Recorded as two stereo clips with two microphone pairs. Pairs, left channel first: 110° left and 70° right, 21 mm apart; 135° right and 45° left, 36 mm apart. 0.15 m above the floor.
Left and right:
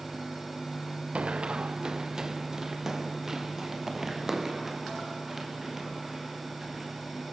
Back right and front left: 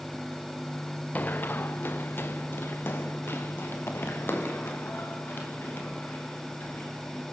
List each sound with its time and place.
1.1 s running footsteps: 90° right, 0.7 m; by 7.2 s 150° right, 7.5 m